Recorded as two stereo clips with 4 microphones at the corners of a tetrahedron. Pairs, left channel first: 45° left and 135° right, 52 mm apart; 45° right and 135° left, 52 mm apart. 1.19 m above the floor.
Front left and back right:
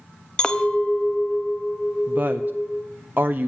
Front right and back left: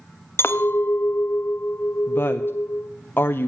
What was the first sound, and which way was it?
A clink, 25° right.